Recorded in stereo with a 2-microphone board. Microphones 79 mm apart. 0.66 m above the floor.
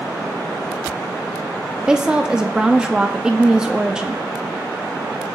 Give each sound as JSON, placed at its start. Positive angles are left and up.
{"t": 1.9, "sound": "a woman speaking", "side_deg": -10, "distance_m": 0.6}